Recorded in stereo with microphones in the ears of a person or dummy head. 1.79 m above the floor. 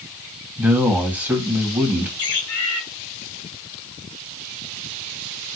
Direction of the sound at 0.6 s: 10° right (ahead or behind).